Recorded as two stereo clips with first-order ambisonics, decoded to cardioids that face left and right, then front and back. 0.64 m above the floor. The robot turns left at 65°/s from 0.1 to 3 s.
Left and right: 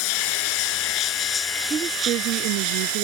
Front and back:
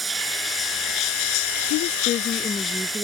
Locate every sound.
0.0 s running water: 100° left; by 3.0 s 85° right
1.7 s a woman speaking: 20° right; by 3.0 s 105° right